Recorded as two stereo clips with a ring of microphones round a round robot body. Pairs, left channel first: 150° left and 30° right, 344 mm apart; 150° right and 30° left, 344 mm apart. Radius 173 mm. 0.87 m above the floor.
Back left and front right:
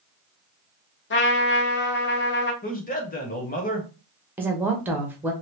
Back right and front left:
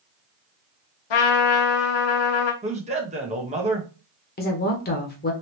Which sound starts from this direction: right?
A woman speaking, at 4.4 s.